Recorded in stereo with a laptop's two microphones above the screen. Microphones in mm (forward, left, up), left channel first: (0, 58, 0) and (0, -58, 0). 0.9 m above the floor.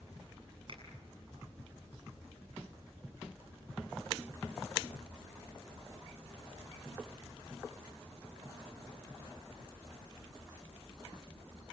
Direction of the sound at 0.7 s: 50° right (ahead or behind).